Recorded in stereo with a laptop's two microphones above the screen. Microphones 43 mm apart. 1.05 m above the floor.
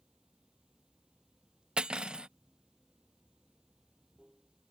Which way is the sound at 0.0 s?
20° right (ahead or behind).